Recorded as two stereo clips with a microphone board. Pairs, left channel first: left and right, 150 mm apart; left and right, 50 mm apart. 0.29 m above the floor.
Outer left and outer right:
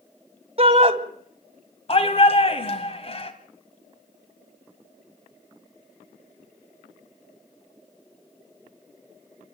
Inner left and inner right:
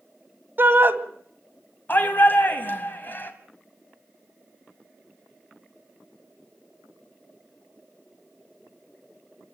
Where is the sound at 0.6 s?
40° right (ahead or behind), 1.9 m.